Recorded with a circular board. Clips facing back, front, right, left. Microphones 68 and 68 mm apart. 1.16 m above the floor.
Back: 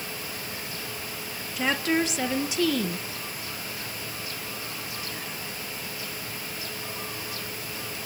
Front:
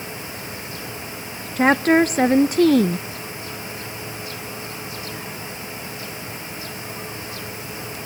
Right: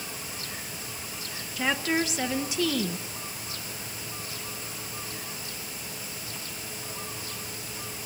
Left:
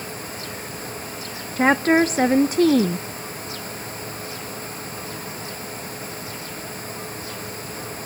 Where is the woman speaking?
40° left, 0.7 m.